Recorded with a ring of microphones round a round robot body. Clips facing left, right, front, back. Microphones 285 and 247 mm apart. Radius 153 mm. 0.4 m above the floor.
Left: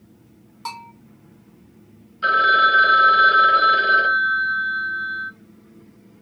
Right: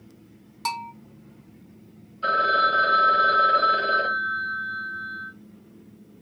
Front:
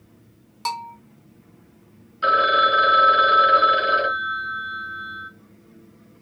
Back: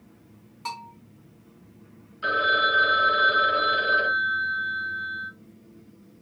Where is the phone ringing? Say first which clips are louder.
Left 1 dB, front 6 dB; 30° left, 1.4 m.